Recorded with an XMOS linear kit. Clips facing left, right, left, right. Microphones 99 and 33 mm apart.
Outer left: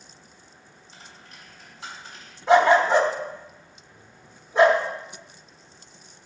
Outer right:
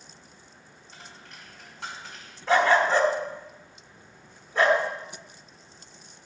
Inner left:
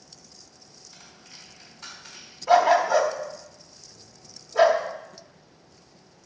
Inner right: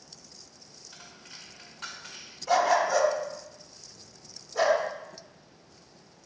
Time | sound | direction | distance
0.9 | a dropped coin | 65° right (ahead or behind) | 2.0 m
2.5 | a dog barking | 20° left (ahead or behind) | 0.8 m